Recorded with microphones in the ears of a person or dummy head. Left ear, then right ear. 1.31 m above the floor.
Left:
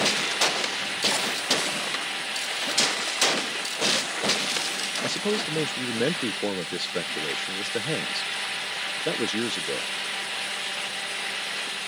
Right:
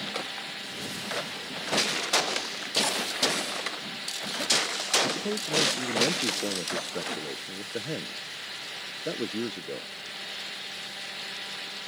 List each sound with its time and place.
5.0 s a man speaking: 30° left (ahead or behind)